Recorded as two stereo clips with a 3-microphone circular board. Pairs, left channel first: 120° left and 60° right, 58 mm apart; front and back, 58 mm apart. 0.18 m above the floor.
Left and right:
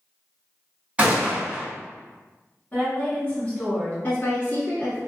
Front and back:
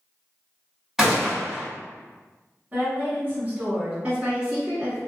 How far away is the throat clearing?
No throat clearing in this recording.